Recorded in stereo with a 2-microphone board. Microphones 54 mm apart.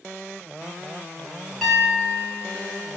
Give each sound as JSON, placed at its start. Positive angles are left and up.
{"t": 1.6, "sound": "a piano", "side_deg": 0, "distance_m": 1.0}